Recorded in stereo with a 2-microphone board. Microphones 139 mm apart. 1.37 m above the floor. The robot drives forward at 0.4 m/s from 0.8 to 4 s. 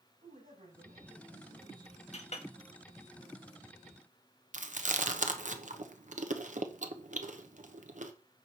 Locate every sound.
0.2 s a man speaking: 80° right, 7.5 m; by 2.0 s 85° right, 7.5 m
2.1 s a clink: 55° left (ahead or behind), 1.3 m; by 2.5 s 50° left (ahead or behind), 1.4 m
4.5 s chewing: 65° right (ahead or behind), 0.9 m